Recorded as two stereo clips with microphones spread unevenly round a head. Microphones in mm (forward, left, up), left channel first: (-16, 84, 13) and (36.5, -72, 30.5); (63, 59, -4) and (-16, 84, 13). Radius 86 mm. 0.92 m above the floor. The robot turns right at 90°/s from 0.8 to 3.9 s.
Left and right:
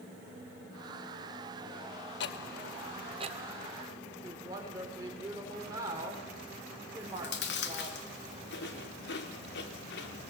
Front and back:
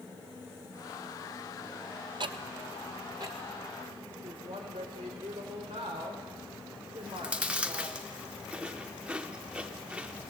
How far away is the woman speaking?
About 3 m.